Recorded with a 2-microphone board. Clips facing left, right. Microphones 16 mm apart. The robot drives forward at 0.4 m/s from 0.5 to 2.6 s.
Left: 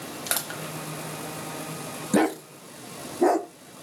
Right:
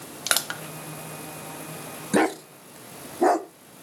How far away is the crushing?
About 1.0 m.